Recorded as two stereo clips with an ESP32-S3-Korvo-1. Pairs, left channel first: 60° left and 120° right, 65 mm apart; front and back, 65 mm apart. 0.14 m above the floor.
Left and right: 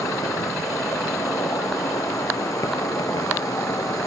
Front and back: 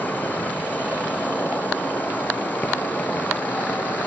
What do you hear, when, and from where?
0.0 s an insect: 60° left, 0.7 m